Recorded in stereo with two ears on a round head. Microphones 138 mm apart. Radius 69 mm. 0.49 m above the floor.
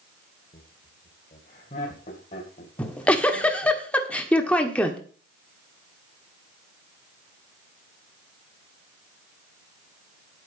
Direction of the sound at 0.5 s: 45° left (ahead or behind).